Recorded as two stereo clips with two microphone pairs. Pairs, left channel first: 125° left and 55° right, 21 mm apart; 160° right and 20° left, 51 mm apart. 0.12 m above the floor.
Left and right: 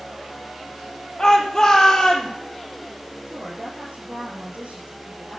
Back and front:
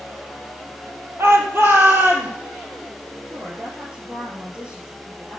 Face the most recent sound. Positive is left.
turn(degrees=-45)